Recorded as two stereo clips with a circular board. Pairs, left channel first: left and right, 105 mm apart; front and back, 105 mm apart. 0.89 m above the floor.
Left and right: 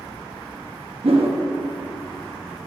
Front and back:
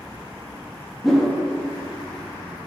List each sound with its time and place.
1.0 s a whoosh: 90° right, 1.1 m